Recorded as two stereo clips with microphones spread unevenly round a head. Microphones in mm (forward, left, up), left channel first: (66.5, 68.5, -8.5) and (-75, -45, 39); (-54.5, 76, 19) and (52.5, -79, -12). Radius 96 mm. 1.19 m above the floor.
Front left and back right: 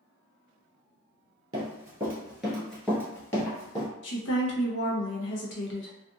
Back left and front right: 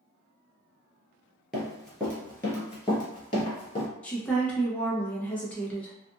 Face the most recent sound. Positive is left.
turn(degrees=40)